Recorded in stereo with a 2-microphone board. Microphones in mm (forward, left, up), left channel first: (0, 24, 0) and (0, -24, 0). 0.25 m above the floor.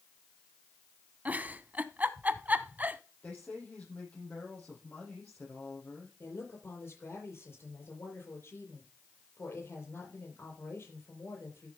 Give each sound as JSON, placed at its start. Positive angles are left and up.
{"t": 1.2, "sound": "a giggle", "side_deg": -30, "distance_m": 0.7}
{"t": 3.2, "sound": "a woman speaking", "side_deg": 25, "distance_m": 7.5}
{"t": 6.2, "sound": "a woman speaking", "side_deg": 50, "distance_m": 7.0}